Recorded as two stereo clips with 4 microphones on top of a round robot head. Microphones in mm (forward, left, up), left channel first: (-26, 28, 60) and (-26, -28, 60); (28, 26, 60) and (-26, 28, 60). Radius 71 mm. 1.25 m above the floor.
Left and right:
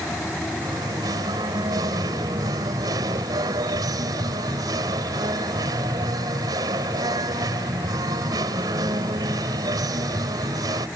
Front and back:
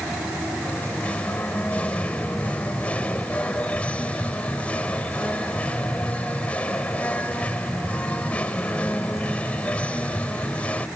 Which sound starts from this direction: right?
Singing, at 0.6 s.